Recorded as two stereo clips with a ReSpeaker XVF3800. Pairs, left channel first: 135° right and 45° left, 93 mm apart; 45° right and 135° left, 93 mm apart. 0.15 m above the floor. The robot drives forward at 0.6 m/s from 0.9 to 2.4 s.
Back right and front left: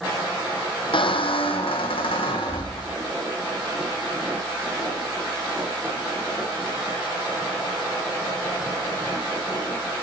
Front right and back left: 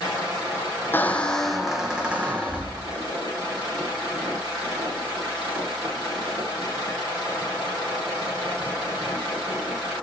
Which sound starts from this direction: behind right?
A squeak, at 0.9 s.